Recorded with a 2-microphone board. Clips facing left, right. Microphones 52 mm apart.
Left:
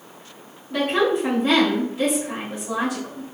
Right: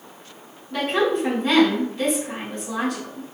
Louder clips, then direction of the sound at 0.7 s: Left 1 dB; 5° left (ahead or behind).